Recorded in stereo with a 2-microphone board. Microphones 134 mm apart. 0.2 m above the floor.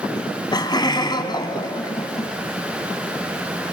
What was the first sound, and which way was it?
Laughter, 35° left (ahead or behind).